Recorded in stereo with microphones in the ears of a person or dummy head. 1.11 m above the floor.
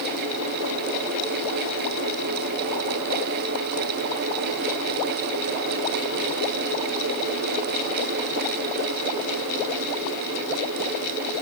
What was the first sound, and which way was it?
Only background noise.